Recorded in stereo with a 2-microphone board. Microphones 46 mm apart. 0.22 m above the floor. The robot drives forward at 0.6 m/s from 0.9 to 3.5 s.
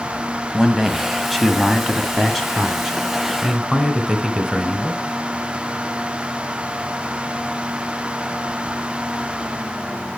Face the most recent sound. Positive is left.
turn(degrees=0)  # may be behind; listen again after turning